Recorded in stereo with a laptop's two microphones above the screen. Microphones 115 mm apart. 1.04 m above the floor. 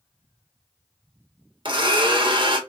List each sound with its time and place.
1.6 s a blender: 45° right (ahead or behind), 0.9 m